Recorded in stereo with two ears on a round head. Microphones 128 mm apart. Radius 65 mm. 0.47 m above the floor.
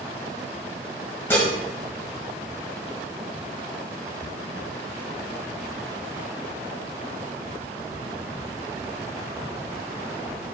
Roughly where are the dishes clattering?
Centre.